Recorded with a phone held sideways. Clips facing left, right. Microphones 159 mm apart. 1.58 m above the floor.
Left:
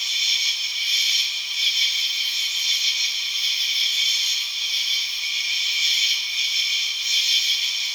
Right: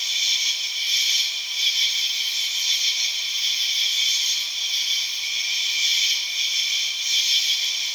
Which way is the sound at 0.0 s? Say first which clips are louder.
Left 1 dB; 45° right (ahead or behind).